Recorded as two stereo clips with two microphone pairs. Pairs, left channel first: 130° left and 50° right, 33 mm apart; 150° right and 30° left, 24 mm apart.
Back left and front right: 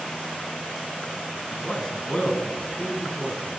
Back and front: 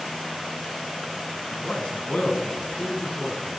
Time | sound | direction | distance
1.5 | a man speaking | 170° right | 5.5 m